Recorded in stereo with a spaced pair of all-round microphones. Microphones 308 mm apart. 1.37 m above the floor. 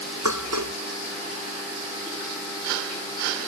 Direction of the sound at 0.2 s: 65° right (ahead or behind).